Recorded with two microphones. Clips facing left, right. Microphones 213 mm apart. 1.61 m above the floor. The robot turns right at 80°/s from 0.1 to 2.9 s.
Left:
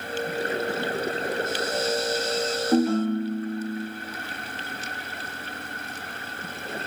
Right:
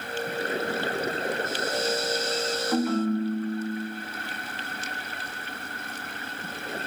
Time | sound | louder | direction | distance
2.7 | a ringtone | left 3 dB | 30° left (ahead or behind) | 1.1 m